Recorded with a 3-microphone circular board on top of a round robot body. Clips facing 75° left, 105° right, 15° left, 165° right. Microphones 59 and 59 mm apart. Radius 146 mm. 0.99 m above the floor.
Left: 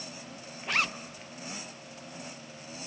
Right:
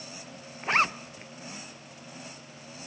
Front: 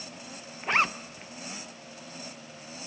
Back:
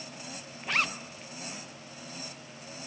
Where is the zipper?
50° right, 0.5 m.